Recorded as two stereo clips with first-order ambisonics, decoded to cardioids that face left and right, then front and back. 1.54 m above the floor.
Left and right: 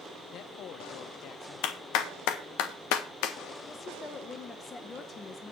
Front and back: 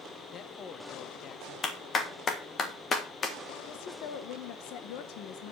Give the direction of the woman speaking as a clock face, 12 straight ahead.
11 o'clock.